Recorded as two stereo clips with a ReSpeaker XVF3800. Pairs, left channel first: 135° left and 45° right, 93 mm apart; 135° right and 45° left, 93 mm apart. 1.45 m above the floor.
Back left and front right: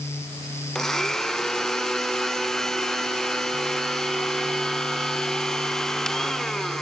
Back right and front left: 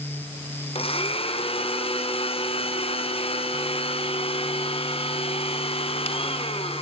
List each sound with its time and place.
0.8 s a blender: 140° right, 1.4 m